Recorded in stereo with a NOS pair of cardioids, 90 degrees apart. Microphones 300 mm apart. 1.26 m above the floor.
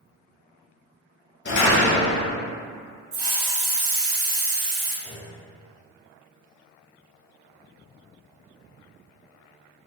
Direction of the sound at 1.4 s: 35° left.